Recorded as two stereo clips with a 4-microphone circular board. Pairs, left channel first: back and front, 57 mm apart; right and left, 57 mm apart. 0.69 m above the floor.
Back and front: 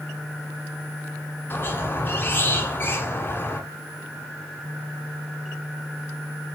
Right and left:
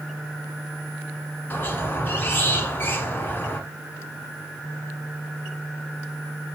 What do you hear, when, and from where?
1.5 s a squeak: 140° right, 1.0 m